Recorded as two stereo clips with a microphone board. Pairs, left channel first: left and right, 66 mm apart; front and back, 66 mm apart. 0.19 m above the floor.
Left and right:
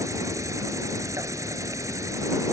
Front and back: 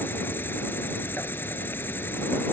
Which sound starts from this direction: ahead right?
An insect, at 0.0 s.